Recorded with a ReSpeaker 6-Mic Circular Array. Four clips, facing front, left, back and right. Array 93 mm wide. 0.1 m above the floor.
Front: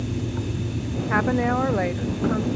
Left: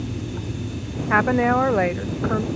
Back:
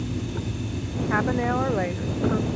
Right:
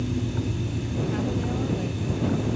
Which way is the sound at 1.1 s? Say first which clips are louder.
Left 14 dB, front 2 dB; 80° left.